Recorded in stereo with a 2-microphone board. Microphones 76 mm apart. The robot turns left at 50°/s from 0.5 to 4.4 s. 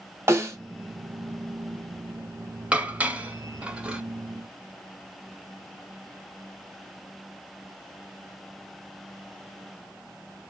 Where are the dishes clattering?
20° right (ahead or behind), 0.6 m; by 4.0 s 15° right (ahead or behind), 0.6 m.